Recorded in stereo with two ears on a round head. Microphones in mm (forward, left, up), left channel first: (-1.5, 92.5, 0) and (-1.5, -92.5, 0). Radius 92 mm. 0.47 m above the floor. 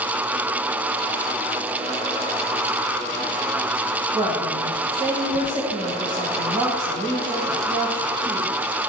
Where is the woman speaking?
25° right (ahead or behind), 2.5 m.